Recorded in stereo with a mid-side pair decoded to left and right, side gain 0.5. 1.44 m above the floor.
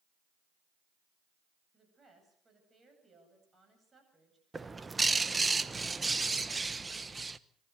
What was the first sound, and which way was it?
A woman speaking, 30° right.